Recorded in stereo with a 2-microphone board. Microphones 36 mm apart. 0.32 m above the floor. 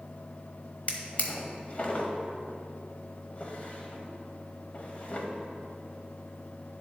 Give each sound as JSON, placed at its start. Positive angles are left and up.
{"t": 0.9, "sound": "a drawer", "side_deg": 45, "distance_m": 0.8}